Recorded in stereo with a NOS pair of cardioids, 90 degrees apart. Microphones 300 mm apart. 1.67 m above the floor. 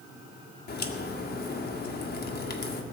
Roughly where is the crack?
Ahead left.